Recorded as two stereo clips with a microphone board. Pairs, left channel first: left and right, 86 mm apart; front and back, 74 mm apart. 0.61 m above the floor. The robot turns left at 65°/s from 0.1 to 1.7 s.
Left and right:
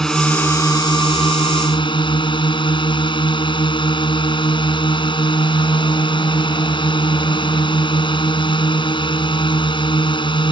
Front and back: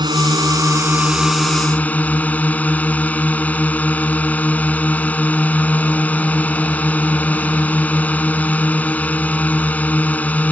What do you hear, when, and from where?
0.0 s a drone: 175° left; by 10.5 s 70° left